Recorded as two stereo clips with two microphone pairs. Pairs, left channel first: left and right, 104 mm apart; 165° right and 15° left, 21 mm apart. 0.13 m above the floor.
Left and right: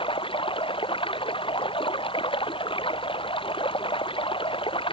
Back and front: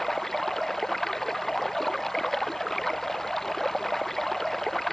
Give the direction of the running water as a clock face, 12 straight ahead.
8 o'clock.